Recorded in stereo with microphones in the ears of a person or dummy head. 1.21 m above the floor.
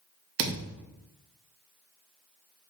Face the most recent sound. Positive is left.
turn(degrees=-55)  # may be behind; listen again after turning